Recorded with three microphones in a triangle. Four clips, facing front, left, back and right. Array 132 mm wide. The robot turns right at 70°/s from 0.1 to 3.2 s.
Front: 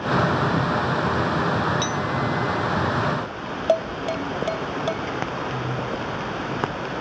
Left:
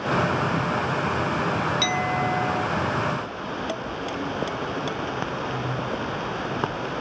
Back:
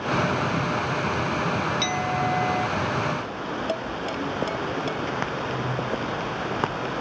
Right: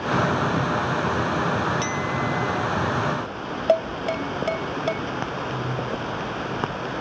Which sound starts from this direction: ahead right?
Dishes clattering, at 3.7 s.